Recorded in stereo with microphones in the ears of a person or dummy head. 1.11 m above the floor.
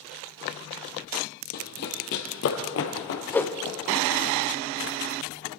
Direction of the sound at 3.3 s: 10° left (ahead or behind).